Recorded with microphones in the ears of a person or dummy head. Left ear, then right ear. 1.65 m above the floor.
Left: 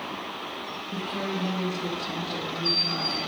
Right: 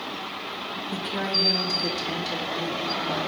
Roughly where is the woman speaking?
Right.